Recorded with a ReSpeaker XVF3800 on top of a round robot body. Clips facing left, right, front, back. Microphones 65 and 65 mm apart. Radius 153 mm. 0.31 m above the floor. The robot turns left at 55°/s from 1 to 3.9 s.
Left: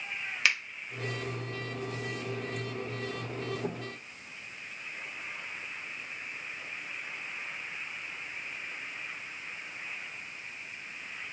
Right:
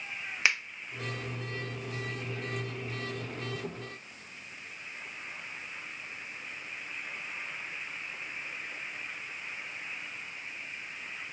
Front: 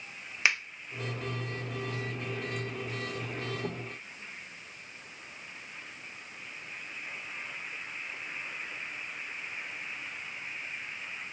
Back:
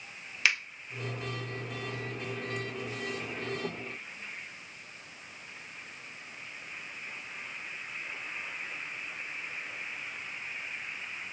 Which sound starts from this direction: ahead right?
A finger snap, at 0.5 s.